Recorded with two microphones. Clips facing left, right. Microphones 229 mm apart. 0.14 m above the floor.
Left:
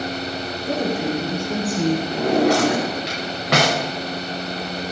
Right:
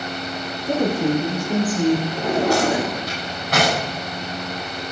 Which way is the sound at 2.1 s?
80° left.